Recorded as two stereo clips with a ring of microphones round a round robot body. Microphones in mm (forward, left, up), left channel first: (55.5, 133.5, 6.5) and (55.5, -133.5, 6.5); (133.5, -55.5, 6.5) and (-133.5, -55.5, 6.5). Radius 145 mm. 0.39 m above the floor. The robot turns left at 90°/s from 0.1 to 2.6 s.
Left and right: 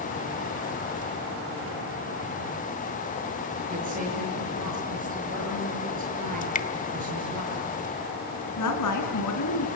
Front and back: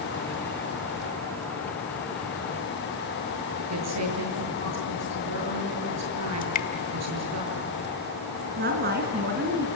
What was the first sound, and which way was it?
A woman speaking, 155° right.